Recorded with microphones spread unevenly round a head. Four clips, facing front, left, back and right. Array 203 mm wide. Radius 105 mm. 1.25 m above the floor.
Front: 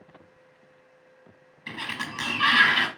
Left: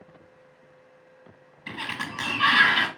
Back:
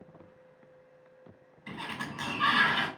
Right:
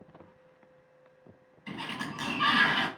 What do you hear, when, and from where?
1.7 s a sliding door: 45° left, 1.0 m